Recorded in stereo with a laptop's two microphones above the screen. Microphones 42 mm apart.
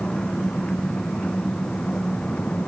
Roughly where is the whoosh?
No whoosh in this recording.